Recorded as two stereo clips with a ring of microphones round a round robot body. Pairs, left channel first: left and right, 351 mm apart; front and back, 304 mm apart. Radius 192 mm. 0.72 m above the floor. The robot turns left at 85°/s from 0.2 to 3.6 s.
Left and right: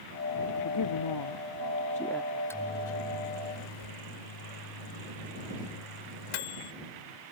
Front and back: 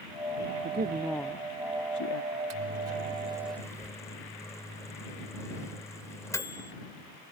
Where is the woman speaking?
130° left; by 2.2 s straight ahead.